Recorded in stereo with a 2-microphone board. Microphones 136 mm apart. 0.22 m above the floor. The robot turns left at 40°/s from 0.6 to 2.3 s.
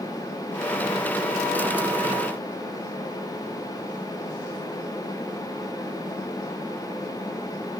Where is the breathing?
No breathing in this recording.